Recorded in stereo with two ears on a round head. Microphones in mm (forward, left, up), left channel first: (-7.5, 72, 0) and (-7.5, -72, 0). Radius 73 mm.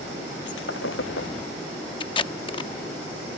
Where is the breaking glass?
85° left.